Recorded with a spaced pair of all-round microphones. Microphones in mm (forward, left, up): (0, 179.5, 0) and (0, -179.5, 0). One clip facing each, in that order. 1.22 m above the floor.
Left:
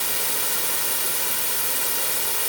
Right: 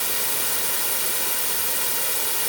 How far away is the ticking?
I don't hear ticking.